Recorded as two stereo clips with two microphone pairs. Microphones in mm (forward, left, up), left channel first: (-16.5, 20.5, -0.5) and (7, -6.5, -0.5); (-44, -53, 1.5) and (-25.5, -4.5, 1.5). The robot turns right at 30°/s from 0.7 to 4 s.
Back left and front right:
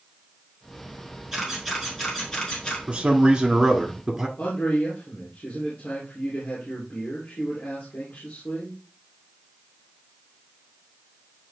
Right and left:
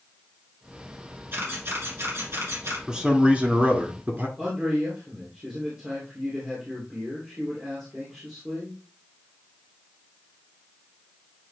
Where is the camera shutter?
30° left, 3.5 m; by 2.8 s 75° left, 3.5 m.